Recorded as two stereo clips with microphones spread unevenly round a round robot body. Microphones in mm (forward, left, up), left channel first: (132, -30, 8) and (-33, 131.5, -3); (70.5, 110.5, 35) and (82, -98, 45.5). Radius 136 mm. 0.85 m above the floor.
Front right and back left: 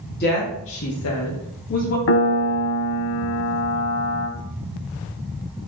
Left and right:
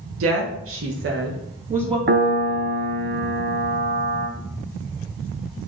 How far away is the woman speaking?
About 1.0 m.